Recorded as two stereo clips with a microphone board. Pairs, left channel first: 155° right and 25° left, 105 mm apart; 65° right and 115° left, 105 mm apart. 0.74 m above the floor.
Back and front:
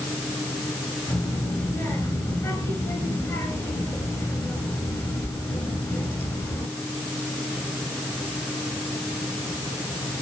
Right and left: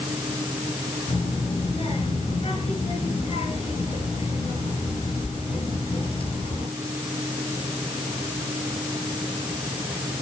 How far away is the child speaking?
About 7.5 m.